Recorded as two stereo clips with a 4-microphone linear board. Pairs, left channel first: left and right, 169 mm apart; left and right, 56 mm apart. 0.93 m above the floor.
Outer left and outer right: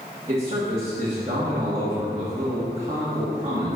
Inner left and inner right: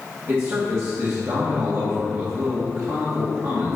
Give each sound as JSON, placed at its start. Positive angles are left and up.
{"t": 0.3, "sound": "a man speaking", "side_deg": -35, "distance_m": 1.8}